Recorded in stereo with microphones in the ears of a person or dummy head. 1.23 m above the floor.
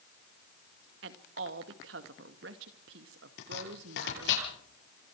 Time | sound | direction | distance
1.0 | a woman speaking | 65° right (ahead or behind) | 1.8 m
3.4 | chopping | 75° left (ahead or behind) | 8.5 m